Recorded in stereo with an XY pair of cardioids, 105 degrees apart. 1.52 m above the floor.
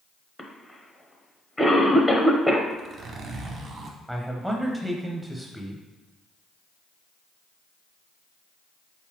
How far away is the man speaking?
About 0.7 m.